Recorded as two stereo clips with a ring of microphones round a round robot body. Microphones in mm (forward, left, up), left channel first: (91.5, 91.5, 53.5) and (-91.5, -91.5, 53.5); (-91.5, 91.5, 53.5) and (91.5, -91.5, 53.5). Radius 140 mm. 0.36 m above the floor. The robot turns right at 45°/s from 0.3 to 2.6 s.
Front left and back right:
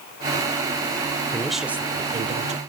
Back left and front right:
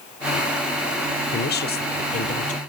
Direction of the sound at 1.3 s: 125° left.